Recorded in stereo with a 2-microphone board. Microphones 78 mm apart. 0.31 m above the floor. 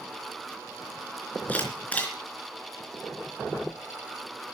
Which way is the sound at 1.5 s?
20° left (ahead or behind).